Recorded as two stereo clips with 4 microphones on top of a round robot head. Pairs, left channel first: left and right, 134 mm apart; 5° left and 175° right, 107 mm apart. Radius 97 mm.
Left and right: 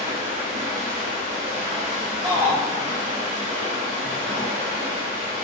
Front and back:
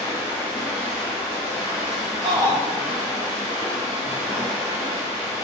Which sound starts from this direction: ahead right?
Running water, at 0.0 s.